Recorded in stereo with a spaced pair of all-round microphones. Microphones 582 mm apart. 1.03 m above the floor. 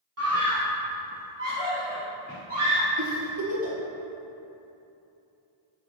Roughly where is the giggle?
Right.